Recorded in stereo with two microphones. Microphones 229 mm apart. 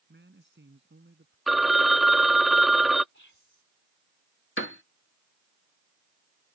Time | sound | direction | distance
0.1 | a man speaking | 50° right (ahead or behind) | ?
1.5 | a phone ringing | centre (ahead or behind) | ?
3.1 | whispering | 55° left (ahead or behind) | ?
4.6 | a piano | 55° left (ahead or behind) | ?